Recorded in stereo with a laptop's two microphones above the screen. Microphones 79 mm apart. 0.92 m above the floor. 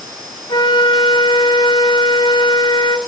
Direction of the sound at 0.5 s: 80° left.